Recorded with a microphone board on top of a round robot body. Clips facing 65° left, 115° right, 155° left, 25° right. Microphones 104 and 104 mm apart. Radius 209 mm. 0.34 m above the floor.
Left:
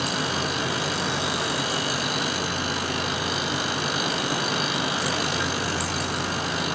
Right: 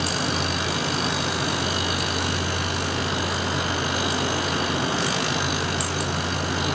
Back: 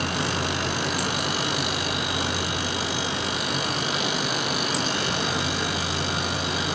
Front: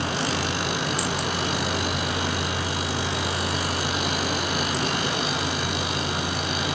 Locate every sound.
Only background noise.